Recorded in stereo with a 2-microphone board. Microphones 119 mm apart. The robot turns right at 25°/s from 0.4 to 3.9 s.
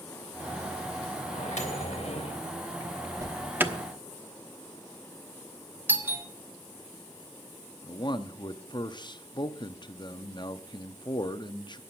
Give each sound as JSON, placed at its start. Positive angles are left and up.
{"t": 1.3, "sound": "a microwave", "side_deg": 75, "distance_m": 3.0}
{"t": 3.2, "sound": "an alarm", "side_deg": -25, "distance_m": 1.0}
{"t": 5.9, "sound": "a doorbell", "side_deg": -15, "distance_m": 1.2}
{"t": 7.8, "sound": "a man speaking", "side_deg": 35, "distance_m": 0.7}